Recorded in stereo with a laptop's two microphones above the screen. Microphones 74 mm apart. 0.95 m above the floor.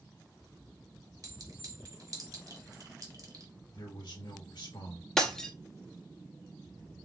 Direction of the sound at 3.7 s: 70° left (ahead or behind).